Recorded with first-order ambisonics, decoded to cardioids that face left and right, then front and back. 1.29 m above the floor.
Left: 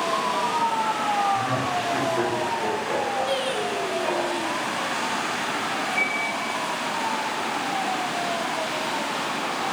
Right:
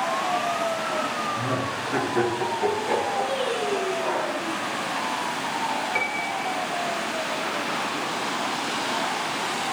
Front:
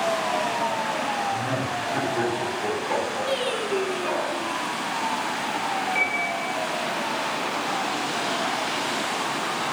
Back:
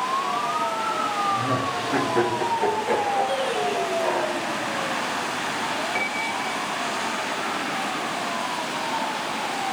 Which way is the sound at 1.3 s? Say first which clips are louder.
Left 3 dB, back 3 dB; 160° right.